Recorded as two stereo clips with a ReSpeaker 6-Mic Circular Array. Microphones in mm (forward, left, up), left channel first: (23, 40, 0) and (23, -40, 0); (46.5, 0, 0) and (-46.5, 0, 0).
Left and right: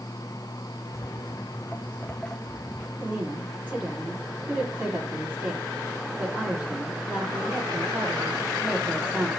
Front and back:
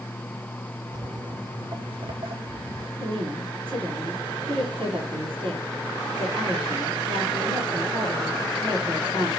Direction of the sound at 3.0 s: 160° right.